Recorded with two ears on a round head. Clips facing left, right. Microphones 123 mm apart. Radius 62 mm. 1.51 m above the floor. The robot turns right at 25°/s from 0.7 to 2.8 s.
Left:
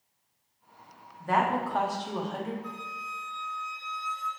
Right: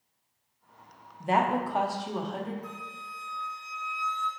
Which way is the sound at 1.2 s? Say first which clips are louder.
Right 1 dB; 30° right.